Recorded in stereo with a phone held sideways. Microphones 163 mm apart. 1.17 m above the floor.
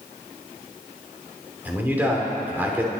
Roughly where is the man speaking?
Centre.